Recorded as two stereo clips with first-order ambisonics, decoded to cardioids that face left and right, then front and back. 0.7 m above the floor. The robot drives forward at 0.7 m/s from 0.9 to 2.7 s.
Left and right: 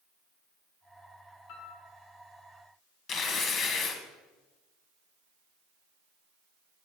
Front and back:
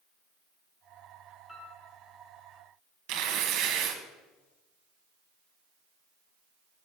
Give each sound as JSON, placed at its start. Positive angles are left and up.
{"t": 1.5, "sound": "a piano", "azimuth_deg": 80, "distance_m": 2.5}
{"t": 3.1, "sound": "tearing paper", "azimuth_deg": 150, "distance_m": 1.0}